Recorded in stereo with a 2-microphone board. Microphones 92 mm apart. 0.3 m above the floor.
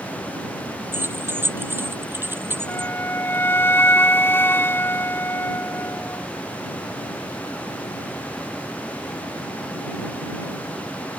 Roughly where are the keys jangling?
Right.